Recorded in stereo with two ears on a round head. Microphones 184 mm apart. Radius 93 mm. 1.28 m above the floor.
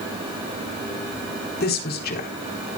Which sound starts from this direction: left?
A woman speaking, at 1.6 s.